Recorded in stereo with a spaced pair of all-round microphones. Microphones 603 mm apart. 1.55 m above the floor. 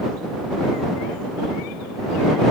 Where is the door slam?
No door slam in this recording.